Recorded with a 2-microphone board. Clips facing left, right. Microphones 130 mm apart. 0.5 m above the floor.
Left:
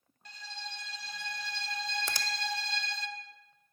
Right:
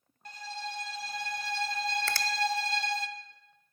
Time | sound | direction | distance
0.2 | a violin | 45° right (ahead or behind) | 0.6 m
2.1 | a finger snap | 15° left (ahead or behind) | 0.5 m